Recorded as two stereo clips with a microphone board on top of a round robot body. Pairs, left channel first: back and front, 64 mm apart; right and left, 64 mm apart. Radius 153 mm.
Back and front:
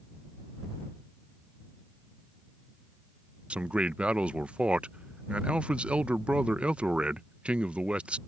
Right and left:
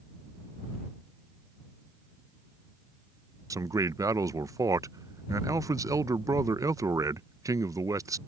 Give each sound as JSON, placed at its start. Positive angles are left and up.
{"t": 3.5, "sound": "a man speaking", "azimuth_deg": 75}